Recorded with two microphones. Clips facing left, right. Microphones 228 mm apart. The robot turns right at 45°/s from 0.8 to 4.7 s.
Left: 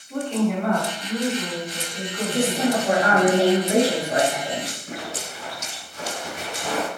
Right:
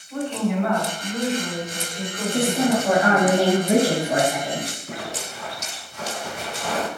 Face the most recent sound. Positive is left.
turn(degrees=45)  # may be behind; listen again after turning